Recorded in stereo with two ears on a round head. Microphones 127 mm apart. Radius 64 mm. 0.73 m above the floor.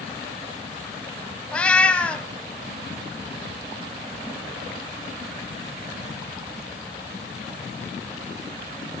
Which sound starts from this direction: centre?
A cat meowing, at 1.5 s.